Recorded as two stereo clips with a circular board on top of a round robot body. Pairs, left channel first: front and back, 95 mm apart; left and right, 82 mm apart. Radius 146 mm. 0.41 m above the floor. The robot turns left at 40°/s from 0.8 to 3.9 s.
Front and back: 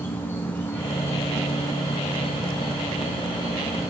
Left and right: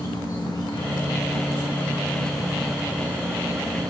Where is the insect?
65° left, 4.5 m; by 3.9 s 55° right, 4.5 m.